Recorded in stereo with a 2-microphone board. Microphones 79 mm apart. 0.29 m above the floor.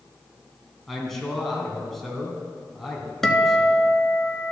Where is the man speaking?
Centre (ahead or behind), 2.5 m.